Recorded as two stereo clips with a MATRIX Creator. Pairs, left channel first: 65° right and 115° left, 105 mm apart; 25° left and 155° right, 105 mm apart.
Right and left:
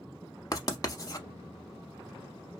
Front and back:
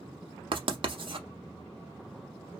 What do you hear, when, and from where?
0.5 s writing: 125° right, 0.6 m